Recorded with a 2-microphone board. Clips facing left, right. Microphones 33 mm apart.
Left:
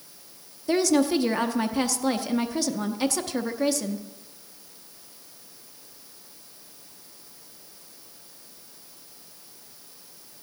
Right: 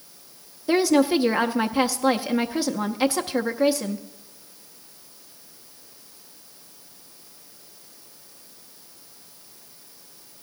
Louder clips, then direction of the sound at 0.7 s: Right 3 dB; 20° right (ahead or behind).